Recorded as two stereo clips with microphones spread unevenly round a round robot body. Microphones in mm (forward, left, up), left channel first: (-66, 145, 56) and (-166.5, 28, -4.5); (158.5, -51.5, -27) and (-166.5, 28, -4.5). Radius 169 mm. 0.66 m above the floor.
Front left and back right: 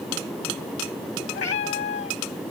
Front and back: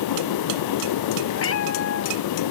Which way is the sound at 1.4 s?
40° left.